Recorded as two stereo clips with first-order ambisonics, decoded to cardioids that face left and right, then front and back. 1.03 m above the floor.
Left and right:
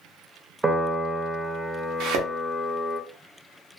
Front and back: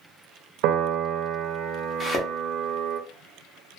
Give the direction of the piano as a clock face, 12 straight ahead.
6 o'clock.